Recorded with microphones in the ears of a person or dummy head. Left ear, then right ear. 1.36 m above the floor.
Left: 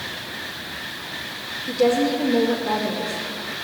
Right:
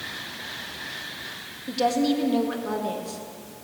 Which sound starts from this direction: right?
A woman speaking, at 1.7 s.